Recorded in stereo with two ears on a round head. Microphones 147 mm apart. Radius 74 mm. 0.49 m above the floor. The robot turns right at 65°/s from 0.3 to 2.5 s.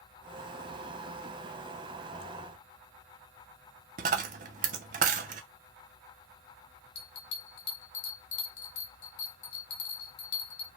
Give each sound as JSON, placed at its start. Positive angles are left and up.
{"t": 4.0, "sound": "a dropped coin", "side_deg": -50, "distance_m": 0.5}
{"t": 7.0, "sound": "a bell", "side_deg": 75, "distance_m": 0.8}